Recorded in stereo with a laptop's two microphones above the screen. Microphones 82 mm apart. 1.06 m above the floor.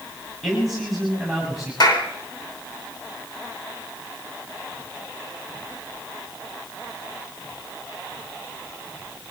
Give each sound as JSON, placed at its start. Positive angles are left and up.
{"t": 0.4, "sound": "a man speaking", "side_deg": -5, "distance_m": 7.5}
{"t": 1.8, "sound": "a clap", "side_deg": 60, "distance_m": 3.0}